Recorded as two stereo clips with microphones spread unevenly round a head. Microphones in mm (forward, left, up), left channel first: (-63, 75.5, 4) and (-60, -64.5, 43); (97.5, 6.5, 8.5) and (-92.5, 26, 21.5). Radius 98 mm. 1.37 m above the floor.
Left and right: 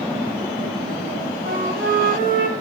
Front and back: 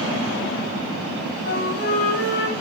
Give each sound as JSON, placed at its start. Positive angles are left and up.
{"t": 1.4, "sound": "a flute", "azimuth_deg": -45, "distance_m": 2.5}